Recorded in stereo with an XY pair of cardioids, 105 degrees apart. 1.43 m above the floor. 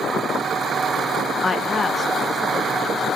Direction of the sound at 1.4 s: 25° left.